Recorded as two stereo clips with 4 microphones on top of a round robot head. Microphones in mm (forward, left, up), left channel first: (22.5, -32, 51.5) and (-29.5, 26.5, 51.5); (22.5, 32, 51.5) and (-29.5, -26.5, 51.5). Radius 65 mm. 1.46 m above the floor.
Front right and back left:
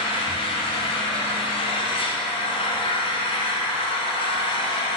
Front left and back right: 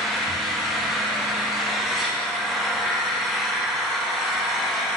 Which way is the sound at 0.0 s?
45° right.